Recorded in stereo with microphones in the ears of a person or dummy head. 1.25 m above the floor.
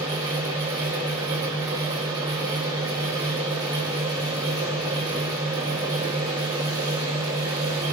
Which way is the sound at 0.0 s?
20° right (ahead or behind).